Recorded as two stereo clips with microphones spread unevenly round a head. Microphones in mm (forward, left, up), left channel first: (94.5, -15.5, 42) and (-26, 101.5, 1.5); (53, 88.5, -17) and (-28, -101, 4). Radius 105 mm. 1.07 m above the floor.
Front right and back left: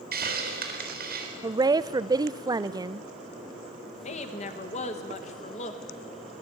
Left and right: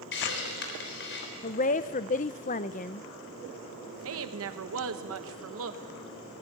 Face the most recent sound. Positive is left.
turn(degrees=-105)